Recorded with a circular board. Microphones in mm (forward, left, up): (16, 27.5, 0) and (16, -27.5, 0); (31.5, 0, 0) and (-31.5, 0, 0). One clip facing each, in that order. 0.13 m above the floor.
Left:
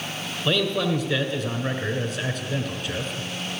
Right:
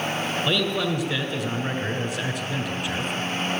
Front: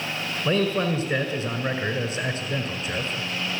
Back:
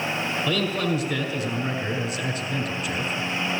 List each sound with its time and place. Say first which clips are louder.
0.5 s a man speaking: left 3 dB, front 4 dB; 10° right, 1.8 m